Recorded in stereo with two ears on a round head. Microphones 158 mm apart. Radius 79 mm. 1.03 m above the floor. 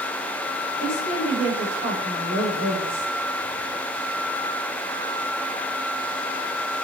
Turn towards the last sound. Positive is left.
turn(degrees=30)  # may be behind; listen again after turning